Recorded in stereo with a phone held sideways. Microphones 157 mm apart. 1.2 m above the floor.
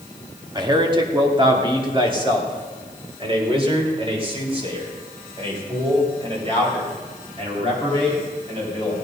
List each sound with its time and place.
0.6 s a man speaking: 25° right (ahead or behind), 1.7 m; by 8.9 s 40° right (ahead or behind), 6 m